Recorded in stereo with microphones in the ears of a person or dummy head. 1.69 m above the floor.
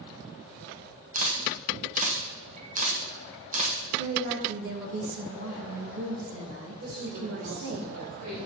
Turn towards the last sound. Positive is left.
turn(degrees=-65)  # may be behind; listen again after turning